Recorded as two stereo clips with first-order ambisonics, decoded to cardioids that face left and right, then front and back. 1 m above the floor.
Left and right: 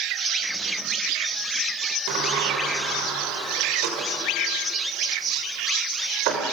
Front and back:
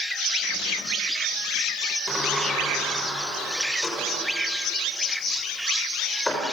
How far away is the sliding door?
About 5 m.